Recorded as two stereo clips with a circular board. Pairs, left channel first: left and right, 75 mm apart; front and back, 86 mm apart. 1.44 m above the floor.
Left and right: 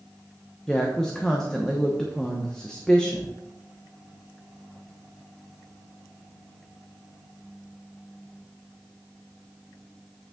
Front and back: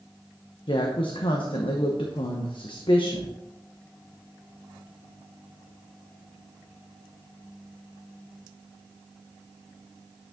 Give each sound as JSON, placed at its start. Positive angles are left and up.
{"t": 0.7, "sound": "a woman speaking", "azimuth_deg": 10, "distance_m": 0.9}